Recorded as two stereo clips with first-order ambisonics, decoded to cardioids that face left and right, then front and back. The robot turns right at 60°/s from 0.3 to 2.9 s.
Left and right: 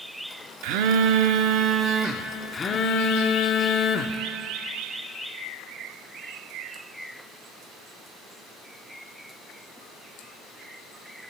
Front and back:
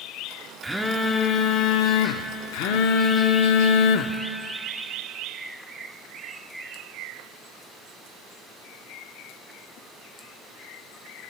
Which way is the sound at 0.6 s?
100° right.